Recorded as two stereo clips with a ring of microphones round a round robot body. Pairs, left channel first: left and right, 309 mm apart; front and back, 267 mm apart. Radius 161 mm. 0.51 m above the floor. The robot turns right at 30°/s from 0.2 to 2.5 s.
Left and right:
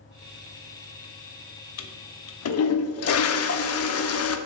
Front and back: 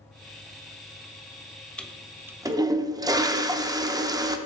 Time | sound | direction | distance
1.8 | a toilet flushing | 85° left | 0.7 m